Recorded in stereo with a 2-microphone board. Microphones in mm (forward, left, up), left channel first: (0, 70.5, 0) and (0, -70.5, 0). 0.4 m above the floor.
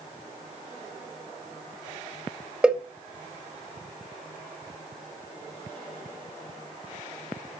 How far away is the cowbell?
About 0.9 m.